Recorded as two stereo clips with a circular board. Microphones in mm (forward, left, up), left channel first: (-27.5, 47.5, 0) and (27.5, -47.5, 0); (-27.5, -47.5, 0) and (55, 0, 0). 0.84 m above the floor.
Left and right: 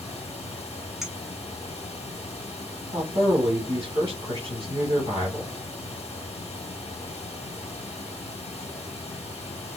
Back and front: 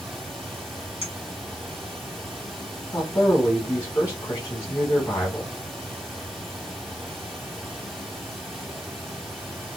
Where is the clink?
150° right, 1.4 m.